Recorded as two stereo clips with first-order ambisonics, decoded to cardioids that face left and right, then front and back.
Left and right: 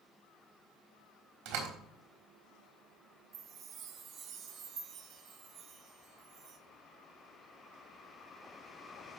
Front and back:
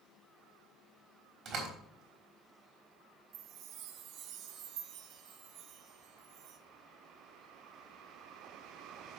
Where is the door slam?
120° right, 4 m.